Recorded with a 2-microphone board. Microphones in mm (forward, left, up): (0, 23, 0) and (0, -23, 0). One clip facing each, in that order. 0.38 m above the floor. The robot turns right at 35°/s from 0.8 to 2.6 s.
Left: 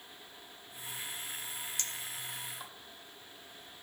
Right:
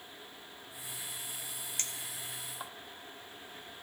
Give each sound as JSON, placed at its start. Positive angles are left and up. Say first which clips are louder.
{"t": 1.8, "sound": "a clink", "louder": "left 1 dB", "side_deg": -40, "distance_m": 0.5}